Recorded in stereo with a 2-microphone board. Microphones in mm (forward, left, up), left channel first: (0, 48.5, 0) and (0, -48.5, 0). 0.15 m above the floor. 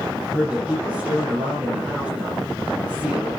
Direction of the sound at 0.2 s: 15° right (ahead or behind).